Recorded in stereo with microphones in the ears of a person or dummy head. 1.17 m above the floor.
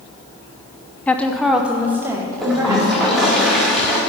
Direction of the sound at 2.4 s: Centre (ahead or behind).